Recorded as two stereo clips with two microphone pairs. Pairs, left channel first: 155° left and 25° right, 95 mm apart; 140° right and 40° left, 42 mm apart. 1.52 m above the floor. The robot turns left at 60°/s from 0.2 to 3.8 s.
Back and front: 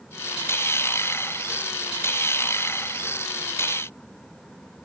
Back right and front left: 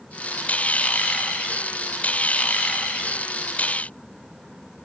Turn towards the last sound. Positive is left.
No sound to turn to.